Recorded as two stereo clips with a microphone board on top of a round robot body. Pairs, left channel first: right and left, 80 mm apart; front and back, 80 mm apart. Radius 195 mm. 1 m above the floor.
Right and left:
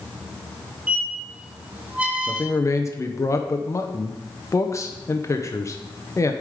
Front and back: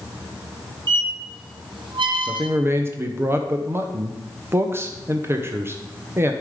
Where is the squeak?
165° left, 0.9 m.